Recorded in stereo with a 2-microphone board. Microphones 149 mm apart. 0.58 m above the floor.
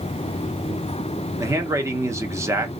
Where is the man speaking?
20° right (ahead or behind), 0.9 m.